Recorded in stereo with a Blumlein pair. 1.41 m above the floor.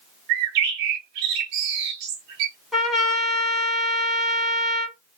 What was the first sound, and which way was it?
A bird, 45° right.